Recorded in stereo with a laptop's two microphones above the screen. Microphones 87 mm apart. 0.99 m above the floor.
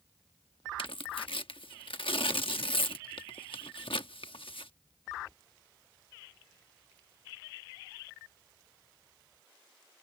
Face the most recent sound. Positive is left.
turn(degrees=80)